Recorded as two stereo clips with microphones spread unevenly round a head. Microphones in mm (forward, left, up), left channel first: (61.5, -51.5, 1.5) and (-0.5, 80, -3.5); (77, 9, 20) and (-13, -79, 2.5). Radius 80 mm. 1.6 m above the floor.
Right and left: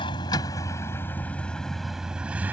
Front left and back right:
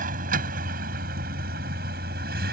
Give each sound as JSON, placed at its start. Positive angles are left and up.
{"t": 0.0, "sound": "a vehicle", "azimuth_deg": -125}